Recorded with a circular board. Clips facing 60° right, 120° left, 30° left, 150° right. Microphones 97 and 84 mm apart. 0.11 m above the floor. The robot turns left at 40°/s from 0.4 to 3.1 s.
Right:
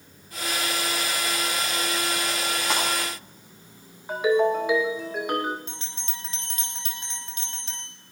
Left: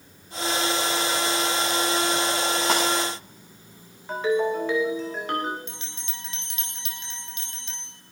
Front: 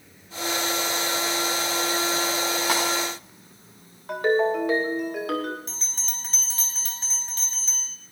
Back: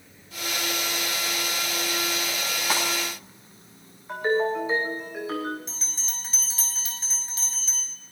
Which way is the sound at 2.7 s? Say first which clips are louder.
Left 3 dB, front 1 dB; 75° left.